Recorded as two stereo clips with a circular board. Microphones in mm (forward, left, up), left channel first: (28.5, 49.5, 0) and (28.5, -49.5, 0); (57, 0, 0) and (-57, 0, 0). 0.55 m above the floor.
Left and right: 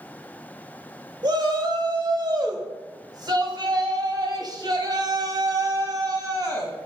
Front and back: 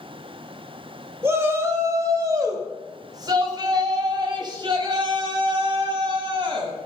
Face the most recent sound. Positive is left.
turn(degrees=-135)